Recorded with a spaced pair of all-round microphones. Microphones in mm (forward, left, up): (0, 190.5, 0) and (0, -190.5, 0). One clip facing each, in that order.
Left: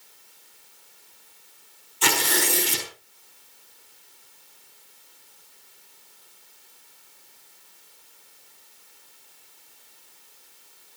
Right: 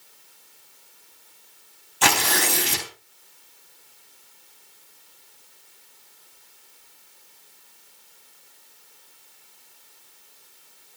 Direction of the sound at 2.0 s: 80° right.